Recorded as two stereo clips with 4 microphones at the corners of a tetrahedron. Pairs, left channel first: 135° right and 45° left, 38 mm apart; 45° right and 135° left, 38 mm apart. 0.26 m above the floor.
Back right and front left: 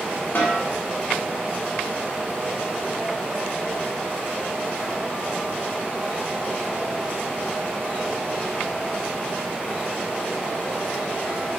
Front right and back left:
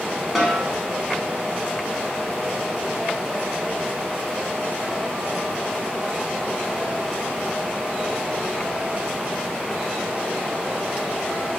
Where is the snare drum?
140° right, 0.8 m.